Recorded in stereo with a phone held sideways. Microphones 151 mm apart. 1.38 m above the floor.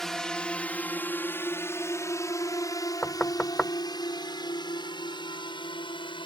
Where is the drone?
Centre (ahead or behind); by 6.3 s 35° left (ahead or behind).